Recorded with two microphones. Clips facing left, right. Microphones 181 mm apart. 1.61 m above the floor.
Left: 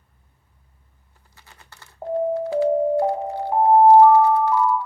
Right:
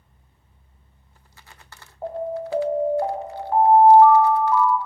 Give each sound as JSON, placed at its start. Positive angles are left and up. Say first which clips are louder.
{"t": 2.0, "sound": "an alarm", "louder": "left 5 dB", "side_deg": 15, "distance_m": 0.7}